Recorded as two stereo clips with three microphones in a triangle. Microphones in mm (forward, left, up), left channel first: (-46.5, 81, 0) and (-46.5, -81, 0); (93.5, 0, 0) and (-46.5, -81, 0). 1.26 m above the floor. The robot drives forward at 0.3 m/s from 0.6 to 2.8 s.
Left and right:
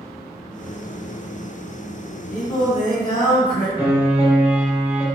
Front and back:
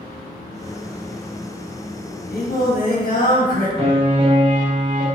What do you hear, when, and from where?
2.3 s singing: 50° left, 0.9 m; by 3.7 s 60° left, 0.8 m
3.8 s a piano: 160° right, 0.9 m